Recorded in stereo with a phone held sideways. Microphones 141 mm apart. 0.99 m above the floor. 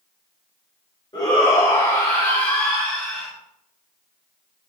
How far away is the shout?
About 1.9 m.